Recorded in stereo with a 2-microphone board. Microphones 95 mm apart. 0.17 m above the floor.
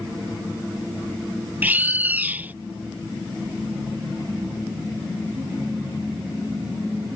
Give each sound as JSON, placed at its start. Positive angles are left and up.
{"t": 1.6, "sound": "a bird", "side_deg": -20}